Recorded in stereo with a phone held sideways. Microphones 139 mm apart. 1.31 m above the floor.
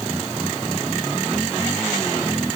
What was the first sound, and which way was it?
Only background noise.